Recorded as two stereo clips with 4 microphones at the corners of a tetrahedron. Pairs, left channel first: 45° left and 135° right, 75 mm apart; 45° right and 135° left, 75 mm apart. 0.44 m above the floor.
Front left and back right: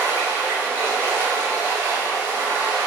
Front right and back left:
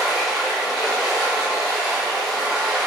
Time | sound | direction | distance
0.0 | running water | 145° right | 0.9 m